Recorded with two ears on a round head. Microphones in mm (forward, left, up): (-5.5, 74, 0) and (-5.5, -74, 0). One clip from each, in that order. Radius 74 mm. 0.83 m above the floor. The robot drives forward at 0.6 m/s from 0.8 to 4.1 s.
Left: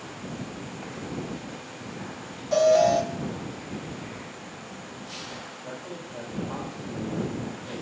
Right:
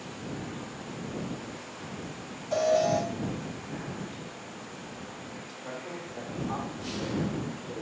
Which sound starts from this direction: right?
A man speaking, at 5.5 s.